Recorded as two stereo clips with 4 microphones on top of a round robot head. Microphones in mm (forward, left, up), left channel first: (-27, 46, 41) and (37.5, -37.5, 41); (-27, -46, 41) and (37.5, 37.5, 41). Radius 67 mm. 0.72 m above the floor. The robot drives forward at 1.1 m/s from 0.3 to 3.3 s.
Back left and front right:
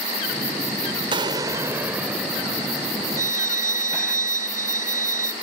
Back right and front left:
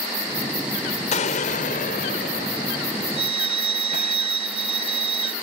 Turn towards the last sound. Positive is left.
turn(degrees=15)